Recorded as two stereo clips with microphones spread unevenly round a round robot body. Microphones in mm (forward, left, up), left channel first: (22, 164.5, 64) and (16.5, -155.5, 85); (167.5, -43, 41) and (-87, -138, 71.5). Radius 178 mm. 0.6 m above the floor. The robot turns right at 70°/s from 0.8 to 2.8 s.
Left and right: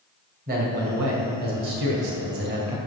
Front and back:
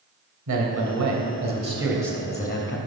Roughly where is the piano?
I don't hear a piano.